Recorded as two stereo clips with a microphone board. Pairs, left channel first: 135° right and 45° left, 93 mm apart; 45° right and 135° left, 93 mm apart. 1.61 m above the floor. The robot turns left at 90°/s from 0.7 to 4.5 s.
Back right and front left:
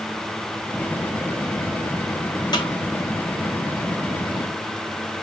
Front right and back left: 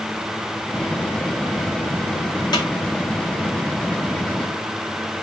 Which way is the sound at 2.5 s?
90° right.